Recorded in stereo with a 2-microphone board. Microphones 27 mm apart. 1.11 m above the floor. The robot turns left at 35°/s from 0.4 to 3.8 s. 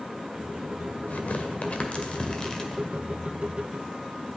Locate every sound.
1.1 s tearing paper: 70° left (ahead or behind), 1.7 m; by 2.8 s 20° left (ahead or behind), 1.7 m